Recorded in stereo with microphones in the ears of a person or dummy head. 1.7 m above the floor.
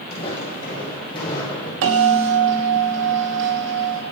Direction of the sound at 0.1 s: 30° left (ahead or behind).